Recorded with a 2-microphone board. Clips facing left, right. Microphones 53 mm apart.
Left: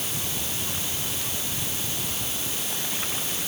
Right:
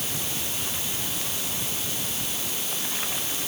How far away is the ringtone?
I don't hear a ringtone.